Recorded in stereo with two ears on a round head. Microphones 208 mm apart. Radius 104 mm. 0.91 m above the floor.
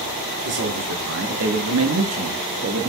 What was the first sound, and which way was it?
A man speaking, 45° right (ahead or behind).